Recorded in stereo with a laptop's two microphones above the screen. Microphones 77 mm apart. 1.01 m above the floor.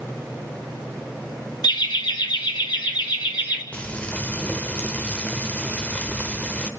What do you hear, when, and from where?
1.6 s laughter: 75° left (ahead or behind), 1.5 m; by 3.6 s 80° left, 3 m
3.7 s frying: 20° left (ahead or behind), 0.9 m